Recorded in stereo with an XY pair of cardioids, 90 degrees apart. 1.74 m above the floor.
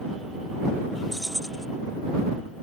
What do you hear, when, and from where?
1.1 s keys jangling: straight ahead